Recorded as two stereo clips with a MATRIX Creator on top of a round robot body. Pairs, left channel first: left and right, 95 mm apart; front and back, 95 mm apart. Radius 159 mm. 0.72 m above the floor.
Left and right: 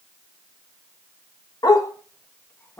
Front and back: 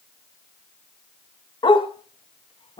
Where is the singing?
I don't hear singing.